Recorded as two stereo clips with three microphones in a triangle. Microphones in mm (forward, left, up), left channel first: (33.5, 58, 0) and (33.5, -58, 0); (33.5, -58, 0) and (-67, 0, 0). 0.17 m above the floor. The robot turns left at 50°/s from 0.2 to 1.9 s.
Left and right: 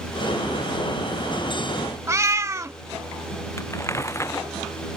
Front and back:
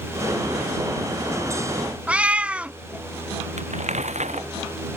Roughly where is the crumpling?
Behind left.